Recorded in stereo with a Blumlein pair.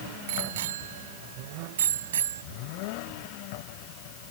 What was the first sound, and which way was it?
A bicycle bell, 55° right.